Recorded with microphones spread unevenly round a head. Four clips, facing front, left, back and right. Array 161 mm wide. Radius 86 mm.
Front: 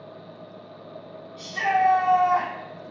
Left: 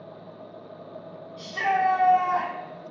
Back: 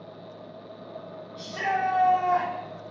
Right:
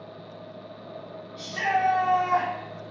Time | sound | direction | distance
1.4 | a shout | 170° left | 1.5 m